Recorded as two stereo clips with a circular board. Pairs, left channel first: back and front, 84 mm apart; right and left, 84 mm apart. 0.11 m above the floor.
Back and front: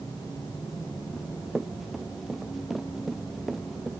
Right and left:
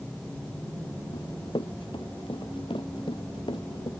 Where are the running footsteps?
85° right.